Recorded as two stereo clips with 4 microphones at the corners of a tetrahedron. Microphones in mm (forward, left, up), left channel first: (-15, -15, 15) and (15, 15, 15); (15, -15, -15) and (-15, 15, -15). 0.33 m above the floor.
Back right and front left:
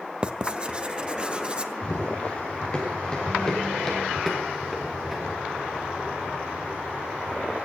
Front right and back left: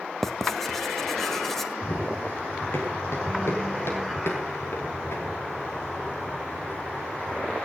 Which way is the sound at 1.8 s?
75° right.